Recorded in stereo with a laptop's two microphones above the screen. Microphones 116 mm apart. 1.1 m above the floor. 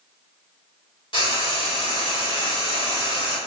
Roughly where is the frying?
Left.